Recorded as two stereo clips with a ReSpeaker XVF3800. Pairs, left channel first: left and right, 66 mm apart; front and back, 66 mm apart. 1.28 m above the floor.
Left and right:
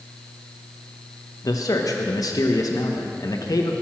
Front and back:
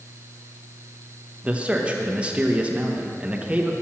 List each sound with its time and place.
1.4 s a man speaking: 110° left, 1.0 m